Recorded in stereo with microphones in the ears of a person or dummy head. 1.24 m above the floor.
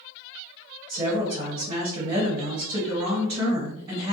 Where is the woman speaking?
35° right (ahead or behind), 1.2 m.